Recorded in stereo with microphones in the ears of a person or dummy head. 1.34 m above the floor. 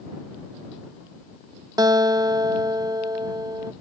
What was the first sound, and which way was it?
A guitar, 20° right (ahead or behind).